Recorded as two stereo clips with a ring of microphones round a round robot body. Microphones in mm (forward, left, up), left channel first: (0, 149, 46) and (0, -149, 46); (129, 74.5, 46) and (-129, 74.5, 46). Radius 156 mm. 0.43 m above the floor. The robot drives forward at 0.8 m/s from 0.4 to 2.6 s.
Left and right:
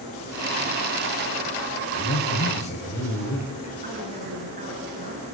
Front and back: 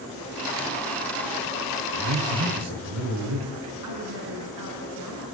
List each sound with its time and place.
1.9 s a man speaking: 155° left, 7.5 m; by 3.7 s 160° left, 8 m
3.8 s a woman speaking: 155° right, 5.5 m